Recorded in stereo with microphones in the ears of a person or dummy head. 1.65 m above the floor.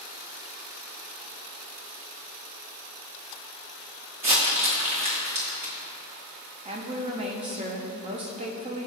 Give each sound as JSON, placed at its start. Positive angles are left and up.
{"t": 4.2, "sound": "crumpling", "side_deg": -25, "distance_m": 1.3}
{"t": 6.7, "sound": "a woman speaking", "side_deg": -25, "distance_m": 0.8}